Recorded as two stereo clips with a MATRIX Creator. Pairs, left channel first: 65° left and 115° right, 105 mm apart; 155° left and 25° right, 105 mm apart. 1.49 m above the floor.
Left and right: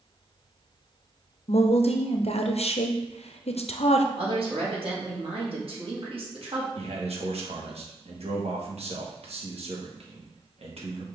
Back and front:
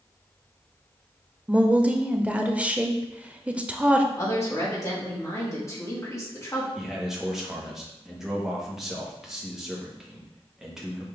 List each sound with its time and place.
1.5 s a woman speaking: 55° left, 0.5 m
4.1 s a woman speaking: 140° right, 1.7 m
6.8 s a man speaking: 110° right, 1.2 m